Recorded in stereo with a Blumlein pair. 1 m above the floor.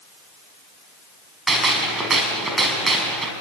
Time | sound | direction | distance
1.5 | a gunshot | 15° right | 5 m